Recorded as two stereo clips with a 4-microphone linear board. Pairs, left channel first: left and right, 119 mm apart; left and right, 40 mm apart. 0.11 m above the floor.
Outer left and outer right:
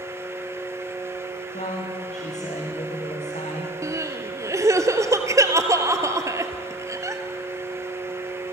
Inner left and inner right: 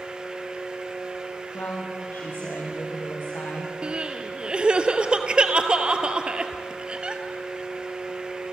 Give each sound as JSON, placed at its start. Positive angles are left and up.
{"t": 1.5, "sound": "a woman speaking", "side_deg": 75, "distance_m": 8.5}
{"t": 3.8, "sound": "crying", "side_deg": -25, "distance_m": 1.5}